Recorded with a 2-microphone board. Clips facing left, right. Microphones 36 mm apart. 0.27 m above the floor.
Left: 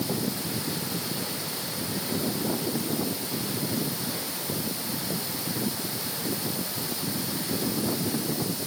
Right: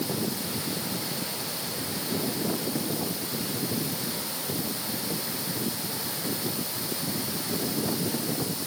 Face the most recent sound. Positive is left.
No sound to turn to.